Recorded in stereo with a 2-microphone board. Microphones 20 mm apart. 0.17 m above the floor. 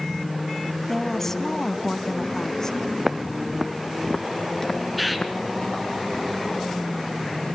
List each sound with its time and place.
0.9 s a woman speaking: 15° left (ahead or behind), 1.1 m; by 2.8 s 30° left (ahead or behind), 1.3 m
3.0 s footsteps: 30° right (ahead or behind), 1.3 m; by 5.8 s 55° left (ahead or behind), 1.8 m
5.0 s a bird: centre (ahead or behind), 2 m